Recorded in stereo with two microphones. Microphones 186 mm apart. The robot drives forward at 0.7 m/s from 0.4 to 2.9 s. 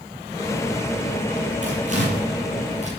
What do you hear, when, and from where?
1.6 s tearing paper: 45° right (ahead or behind), 7.5 m; by 2.9 s 40° right (ahead or behind), 8 m